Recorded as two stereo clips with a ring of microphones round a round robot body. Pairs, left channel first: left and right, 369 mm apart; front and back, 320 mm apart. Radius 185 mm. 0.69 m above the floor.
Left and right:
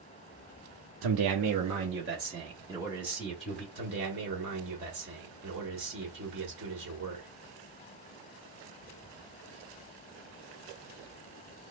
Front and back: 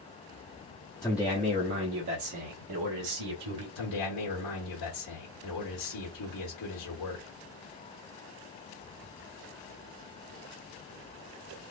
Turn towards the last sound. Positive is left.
turn(degrees=-25)